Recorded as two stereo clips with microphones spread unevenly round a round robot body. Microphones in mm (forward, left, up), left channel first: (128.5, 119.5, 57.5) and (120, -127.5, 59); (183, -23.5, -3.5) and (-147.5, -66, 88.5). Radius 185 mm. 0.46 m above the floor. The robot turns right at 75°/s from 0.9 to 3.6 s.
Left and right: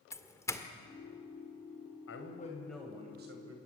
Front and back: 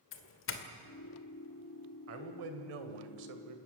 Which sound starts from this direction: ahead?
A doorbell, at 0.1 s.